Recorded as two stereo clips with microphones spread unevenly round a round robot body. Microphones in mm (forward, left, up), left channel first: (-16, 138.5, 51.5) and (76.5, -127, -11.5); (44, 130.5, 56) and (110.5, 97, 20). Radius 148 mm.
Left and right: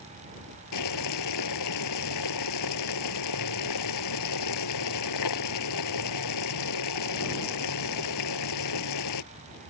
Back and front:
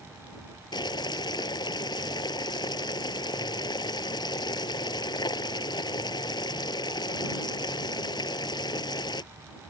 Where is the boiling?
140° left.